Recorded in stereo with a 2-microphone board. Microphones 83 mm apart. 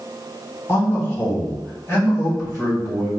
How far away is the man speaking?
About 1.9 m.